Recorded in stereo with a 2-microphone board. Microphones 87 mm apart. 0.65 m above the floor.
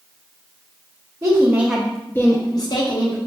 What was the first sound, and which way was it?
A woman speaking, 40° right (ahead or behind).